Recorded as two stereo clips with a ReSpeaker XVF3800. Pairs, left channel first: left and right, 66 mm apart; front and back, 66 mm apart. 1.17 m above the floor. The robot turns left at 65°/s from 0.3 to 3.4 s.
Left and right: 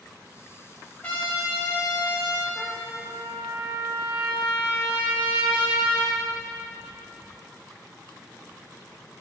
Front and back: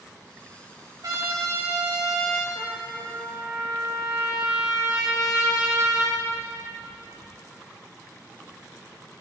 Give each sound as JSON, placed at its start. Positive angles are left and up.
{"t": 1.0, "sound": "a trumpet", "azimuth_deg": 160, "distance_m": 3.5}
{"t": 2.5, "sound": "a trumpet", "azimuth_deg": 40, "distance_m": 4.5}